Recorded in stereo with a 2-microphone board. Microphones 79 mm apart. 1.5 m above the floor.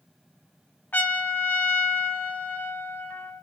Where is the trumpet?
25° left (ahead or behind), 1.4 m.